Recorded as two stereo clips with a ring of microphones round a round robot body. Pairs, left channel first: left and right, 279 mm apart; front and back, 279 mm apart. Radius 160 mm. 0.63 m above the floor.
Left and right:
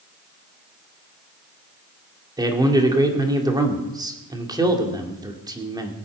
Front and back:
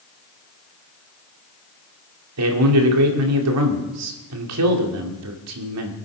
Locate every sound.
2.4 s a man speaking: 165° right, 2.5 m